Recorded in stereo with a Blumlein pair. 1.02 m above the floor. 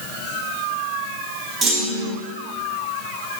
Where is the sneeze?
No sneeze in this recording.